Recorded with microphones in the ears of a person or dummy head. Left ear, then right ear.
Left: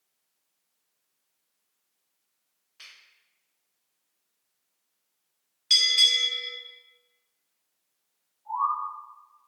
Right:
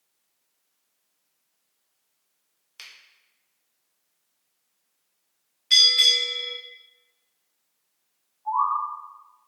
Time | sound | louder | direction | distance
2.8 | a finger snap | right 4 dB | 65° right (ahead or behind) | 0.6 m
5.7 | a bell | right 3 dB | 30° left (ahead or behind) | 0.8 m
8.4 | a bird | right 4 dB | 55° right (ahead or behind) | 1.6 m